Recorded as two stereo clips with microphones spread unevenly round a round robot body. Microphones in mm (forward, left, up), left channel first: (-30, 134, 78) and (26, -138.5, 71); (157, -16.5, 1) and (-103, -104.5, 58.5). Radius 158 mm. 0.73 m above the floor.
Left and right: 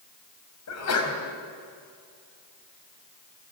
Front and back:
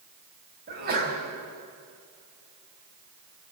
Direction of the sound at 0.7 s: 135° left.